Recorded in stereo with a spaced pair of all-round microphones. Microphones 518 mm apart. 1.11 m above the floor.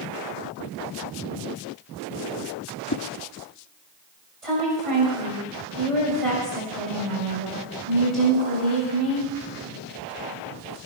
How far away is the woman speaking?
About 6 m.